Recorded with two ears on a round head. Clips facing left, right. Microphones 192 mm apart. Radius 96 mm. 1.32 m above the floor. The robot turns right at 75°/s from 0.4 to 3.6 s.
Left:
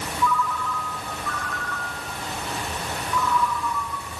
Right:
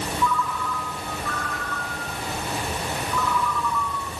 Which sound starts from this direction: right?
A ringtone, at 0.2 s.